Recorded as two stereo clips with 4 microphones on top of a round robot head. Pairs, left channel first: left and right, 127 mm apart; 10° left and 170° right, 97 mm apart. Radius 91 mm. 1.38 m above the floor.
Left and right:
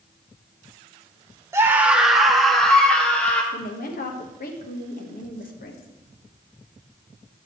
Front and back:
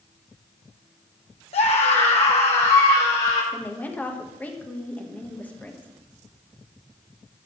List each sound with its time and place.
1.5 s a scream: 20° right, 1.4 m; by 3.4 s 10° left, 3.5 m
3.5 s a woman speaking: 85° left, 1.4 m